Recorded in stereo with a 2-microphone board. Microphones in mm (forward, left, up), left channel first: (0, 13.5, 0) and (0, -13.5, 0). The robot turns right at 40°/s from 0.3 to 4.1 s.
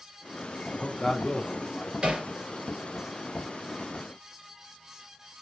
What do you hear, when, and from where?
0.7 s a man speaking: 25° left (ahead or behind), 0.8 m; by 1.9 s 10° left (ahead or behind), 0.8 m
2.0 s hammering: 35° right (ahead or behind), 2.5 m; by 2.3 s 25° right (ahead or behind), 2.5 m